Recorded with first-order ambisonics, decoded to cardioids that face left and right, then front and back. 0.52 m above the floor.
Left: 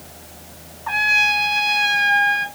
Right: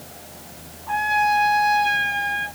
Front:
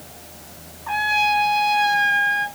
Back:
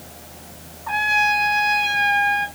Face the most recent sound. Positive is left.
turn(degrees=90)